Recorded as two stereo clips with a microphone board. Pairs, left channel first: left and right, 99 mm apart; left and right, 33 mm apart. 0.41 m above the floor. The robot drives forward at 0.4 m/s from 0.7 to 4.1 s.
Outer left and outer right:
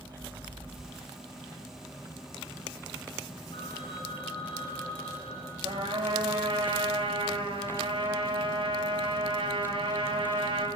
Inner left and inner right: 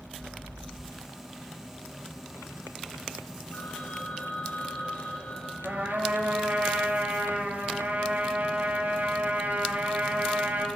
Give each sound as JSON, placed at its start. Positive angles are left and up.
{"t": 3.5, "sound": "a phone ringing", "side_deg": 80, "distance_m": 3.5}
{"t": 5.6, "sound": "a trumpet", "side_deg": -60, "distance_m": 3.5}